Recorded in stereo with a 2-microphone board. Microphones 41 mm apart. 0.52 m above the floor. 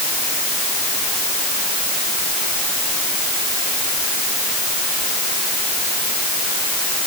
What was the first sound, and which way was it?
Only background noise.